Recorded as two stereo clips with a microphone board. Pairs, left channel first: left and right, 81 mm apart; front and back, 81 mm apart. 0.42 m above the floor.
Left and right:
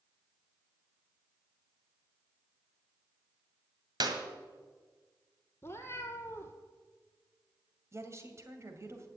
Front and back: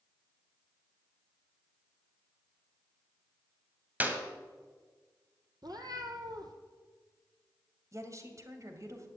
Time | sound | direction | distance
4.0 | a clap | 115° right | 1.9 m
5.6 | a cat meowing | 150° left | 1.7 m
7.9 | a woman speaking | 140° right | 2 m